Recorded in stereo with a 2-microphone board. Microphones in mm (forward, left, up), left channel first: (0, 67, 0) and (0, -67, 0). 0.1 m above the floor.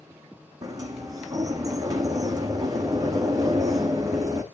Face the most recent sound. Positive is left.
turn(degrees=-25)  # may be behind; listen again after turning